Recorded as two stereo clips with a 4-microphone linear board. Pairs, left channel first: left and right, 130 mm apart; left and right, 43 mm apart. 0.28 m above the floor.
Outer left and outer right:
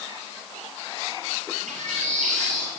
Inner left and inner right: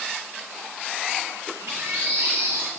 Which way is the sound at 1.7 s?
65° right (ahead or behind).